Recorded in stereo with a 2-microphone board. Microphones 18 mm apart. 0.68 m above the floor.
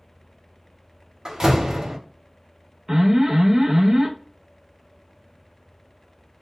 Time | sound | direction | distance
1.2 | a door slam | 40° right (ahead or behind) | 0.7 m
2.9 | an alarm | 25° right (ahead or behind) | 0.6 m